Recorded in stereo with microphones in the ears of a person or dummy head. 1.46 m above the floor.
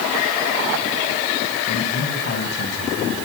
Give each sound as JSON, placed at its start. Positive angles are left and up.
{"t": 1.7, "sound": "a man speaking", "side_deg": 70, "distance_m": 9.5}